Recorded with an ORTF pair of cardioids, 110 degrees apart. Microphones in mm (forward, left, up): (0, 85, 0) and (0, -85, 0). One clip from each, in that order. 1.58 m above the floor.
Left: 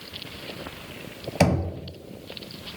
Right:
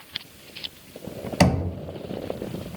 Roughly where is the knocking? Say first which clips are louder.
Right 1 dB; ahead.